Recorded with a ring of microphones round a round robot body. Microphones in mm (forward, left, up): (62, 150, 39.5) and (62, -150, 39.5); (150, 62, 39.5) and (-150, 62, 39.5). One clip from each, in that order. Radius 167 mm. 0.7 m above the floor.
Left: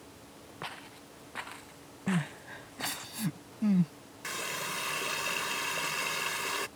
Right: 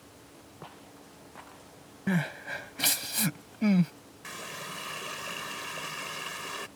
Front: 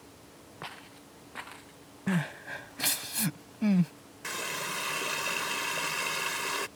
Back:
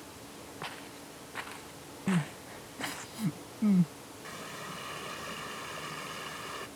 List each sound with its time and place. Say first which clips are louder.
0.6 s footsteps: left 7 dB, back 1 dB; 95° left; by 3.1 s 115° left
2.1 s crying: right 4 dB, front 2 dB; 45° right
4.2 s a running tap: left 4 dB, front 9 dB; 30° left